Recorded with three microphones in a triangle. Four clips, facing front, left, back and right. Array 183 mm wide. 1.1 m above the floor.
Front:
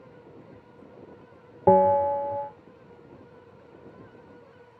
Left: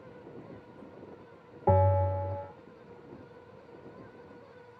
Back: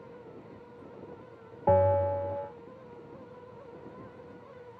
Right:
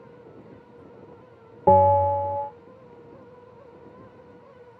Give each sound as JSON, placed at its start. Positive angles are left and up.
{"t": 1.7, "sound": "a bell", "azimuth_deg": -35, "distance_m": 1.0}